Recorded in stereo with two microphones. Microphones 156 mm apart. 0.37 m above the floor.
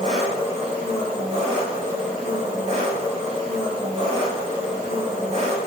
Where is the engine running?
45° right (ahead or behind), 1.2 m.